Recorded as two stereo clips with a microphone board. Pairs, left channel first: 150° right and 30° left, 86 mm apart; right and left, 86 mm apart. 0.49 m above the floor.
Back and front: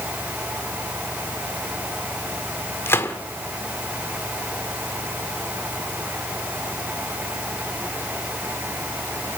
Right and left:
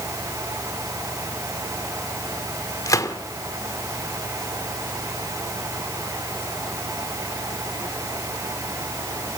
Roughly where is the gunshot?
Right.